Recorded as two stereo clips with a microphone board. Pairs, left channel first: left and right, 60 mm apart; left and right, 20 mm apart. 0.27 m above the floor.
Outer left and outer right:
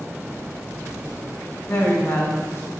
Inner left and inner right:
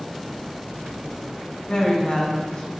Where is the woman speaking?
55° left (ahead or behind), 3 m; by 2.7 s 50° left (ahead or behind), 2.5 m.